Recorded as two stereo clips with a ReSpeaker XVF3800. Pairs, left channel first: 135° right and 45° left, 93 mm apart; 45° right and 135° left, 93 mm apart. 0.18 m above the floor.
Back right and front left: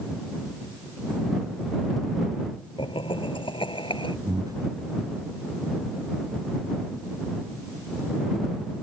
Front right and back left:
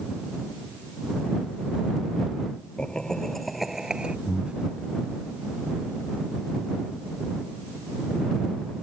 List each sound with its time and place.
2.8 s laughter: 125° right; by 4.2 s 150° right
4.3 s breathing: 60° left